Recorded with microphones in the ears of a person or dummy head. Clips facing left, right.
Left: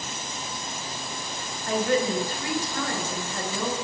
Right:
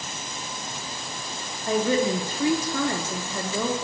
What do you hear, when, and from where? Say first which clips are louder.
1.7 s a woman speaking: right 2 dB; 75° right (ahead or behind), 0.5 m